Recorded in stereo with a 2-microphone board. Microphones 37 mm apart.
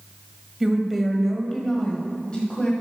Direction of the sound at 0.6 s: 5° right (ahead or behind).